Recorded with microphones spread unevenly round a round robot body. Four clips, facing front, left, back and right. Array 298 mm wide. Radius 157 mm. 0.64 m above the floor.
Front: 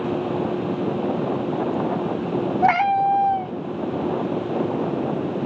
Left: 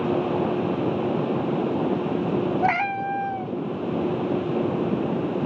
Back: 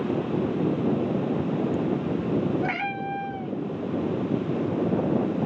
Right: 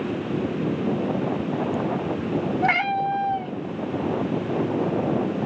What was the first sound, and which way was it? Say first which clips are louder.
A cat meowing: right 1 dB, front 12 dB; 5° right.